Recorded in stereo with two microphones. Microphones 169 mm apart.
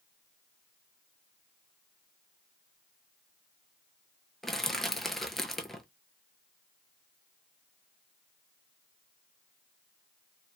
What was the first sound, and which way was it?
Crushing, centre (ahead or behind).